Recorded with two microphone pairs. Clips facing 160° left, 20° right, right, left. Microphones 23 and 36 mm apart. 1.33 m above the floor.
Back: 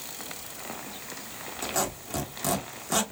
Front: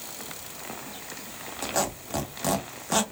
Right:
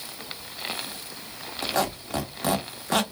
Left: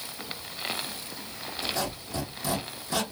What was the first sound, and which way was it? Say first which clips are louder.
A squeak: front 2 dB, right 6 dB; 90° right.